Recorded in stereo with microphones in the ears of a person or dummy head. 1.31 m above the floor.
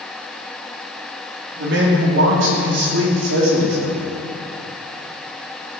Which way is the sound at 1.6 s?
60° right (ahead or behind).